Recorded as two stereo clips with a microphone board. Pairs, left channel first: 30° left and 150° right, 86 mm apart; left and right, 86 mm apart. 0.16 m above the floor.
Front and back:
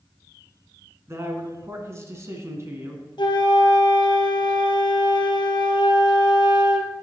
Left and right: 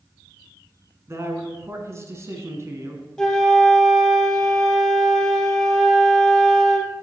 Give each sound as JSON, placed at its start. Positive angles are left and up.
{"t": 1.1, "sound": "a man speaking", "azimuth_deg": -120, "distance_m": 1.4}
{"t": 3.2, "sound": "a flute", "azimuth_deg": 5, "distance_m": 1.0}